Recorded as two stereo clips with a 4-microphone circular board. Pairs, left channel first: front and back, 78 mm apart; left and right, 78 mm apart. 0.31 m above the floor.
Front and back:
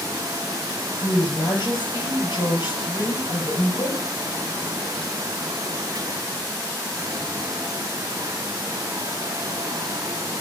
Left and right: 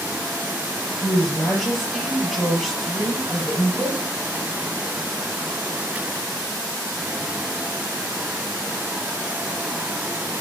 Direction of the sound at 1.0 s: Straight ahead.